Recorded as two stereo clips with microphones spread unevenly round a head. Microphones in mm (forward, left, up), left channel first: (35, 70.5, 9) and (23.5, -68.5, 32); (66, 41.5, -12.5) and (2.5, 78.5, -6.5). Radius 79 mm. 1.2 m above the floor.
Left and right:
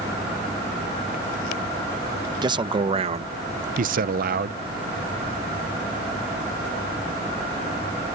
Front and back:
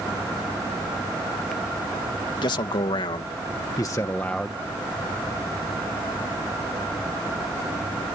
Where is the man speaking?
35° right; by 4.6 s 120° right.